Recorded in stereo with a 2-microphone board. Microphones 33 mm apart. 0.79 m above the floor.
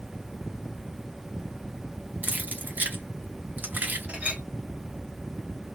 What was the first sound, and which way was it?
Keys jangling, 65° right (ahead or behind).